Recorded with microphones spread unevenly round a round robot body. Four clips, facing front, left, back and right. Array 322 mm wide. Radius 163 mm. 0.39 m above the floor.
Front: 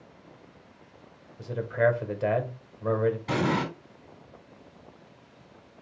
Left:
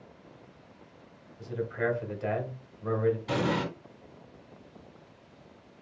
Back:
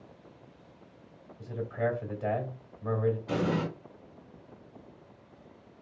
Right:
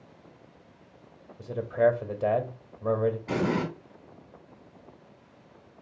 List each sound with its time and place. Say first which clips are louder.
1.4 s a man speaking: right 8 dB, front 7 dB; 50° right, 1.2 m
3.3 s an explosion: right 1 dB, front 3 dB; 10° right, 2.5 m